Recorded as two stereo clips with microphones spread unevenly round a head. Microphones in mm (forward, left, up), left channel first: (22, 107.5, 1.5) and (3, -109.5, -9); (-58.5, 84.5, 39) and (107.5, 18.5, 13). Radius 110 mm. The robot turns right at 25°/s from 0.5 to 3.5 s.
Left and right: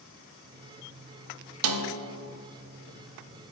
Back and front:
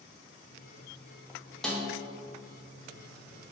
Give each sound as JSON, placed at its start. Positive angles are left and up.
{"t": 1.6, "sound": "a snare drum", "azimuth_deg": -115, "distance_m": 0.6}